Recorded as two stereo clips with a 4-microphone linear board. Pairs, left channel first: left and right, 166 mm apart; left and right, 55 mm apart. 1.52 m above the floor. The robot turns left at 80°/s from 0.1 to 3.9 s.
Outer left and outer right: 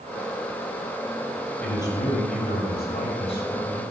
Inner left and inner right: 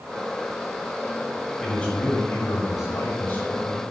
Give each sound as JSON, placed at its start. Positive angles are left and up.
{"t": 1.6, "sound": "a man speaking", "azimuth_deg": 180, "distance_m": 6.5}